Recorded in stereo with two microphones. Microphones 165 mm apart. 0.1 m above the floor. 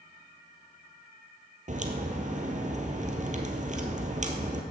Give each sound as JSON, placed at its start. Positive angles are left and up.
{"t": 1.7, "sound": "a crack", "side_deg": -50, "distance_m": 1.6}